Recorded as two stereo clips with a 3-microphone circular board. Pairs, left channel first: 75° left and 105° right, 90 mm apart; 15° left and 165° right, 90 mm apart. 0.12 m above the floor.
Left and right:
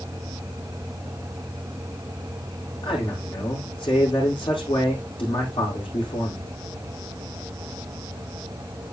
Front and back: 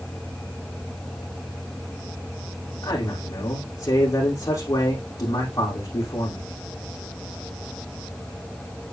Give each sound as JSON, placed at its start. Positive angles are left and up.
{"t": 2.8, "sound": "a man speaking", "azimuth_deg": 65, "distance_m": 5.5}